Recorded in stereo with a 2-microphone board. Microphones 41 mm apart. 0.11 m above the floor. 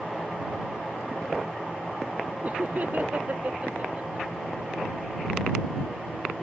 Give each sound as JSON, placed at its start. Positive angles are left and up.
{"t": 2.4, "sound": "laughter", "side_deg": -45}